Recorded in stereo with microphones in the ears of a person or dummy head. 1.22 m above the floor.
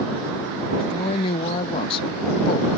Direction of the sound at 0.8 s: 25° left (ahead or behind).